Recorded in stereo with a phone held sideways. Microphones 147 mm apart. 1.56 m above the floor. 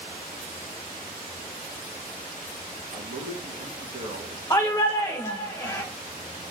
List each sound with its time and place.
2.9 s a man speaking: 65° right (ahead or behind), 3 m
4.5 s a shout: 25° left (ahead or behind), 1.6 m